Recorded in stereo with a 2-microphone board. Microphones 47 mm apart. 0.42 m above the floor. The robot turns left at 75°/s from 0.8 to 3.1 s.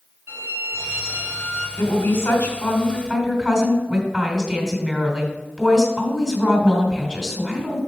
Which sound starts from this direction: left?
A woman speaking, at 1.8 s.